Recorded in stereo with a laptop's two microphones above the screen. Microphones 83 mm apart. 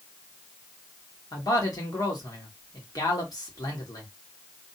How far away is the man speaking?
About 1.5 m.